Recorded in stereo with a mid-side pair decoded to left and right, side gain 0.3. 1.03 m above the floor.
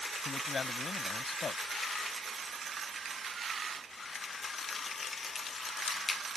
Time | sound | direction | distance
0.2 | a man speaking | 65° left | ?